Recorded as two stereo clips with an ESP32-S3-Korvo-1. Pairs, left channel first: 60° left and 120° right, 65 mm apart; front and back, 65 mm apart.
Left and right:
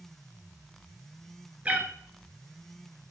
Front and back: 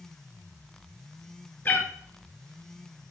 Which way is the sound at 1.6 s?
55° right.